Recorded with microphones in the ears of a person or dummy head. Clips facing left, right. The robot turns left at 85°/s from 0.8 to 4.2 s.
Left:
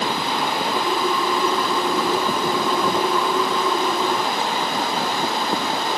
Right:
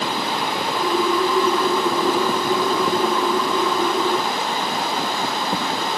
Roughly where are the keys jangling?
No keys jangling in this recording.